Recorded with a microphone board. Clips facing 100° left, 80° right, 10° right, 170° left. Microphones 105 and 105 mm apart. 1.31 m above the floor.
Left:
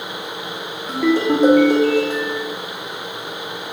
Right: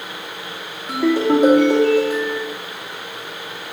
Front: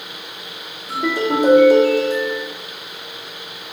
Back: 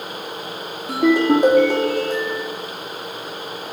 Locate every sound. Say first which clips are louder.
0.9 s a ringtone: right 1 dB, back 5 dB; 155° right, 2 m